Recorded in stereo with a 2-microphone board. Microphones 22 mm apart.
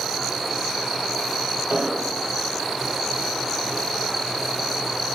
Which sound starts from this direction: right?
An explosion, at 1.7 s.